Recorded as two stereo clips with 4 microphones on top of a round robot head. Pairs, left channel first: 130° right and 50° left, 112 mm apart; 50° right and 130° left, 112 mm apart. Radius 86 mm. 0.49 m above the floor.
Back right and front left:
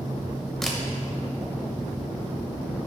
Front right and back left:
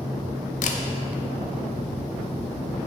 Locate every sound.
0.6 s a camera shutter: 40° right, 0.7 m